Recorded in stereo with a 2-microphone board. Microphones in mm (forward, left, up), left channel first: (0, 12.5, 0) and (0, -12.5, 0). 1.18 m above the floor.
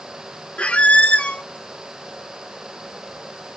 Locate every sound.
0.6 s a squeak: 65° left (ahead or behind), 0.6 m